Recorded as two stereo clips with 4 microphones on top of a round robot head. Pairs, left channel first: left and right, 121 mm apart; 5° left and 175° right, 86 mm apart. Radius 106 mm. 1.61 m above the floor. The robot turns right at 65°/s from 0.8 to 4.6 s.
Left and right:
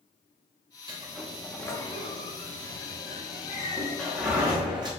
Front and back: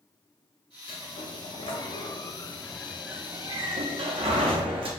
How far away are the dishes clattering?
No dishes clattering in this recording.